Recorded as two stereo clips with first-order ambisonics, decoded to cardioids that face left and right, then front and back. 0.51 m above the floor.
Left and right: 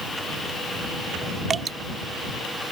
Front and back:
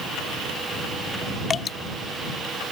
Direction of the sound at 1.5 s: 45° right.